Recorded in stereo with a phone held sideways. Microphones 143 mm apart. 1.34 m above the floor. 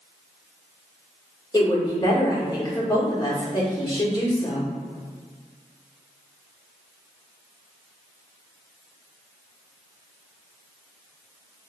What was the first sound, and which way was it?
A woman speaking, 30° left (ahead or behind).